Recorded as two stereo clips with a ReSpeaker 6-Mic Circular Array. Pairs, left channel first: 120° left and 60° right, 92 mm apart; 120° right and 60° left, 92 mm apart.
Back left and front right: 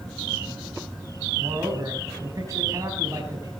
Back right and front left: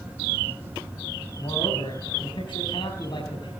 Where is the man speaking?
105° right, 3.5 m.